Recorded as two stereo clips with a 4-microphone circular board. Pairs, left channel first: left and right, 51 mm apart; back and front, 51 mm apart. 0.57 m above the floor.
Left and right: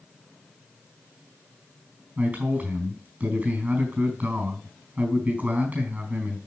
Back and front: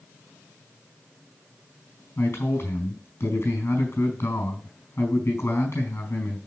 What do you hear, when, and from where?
2.2 s a man speaking: 150° right, 4 m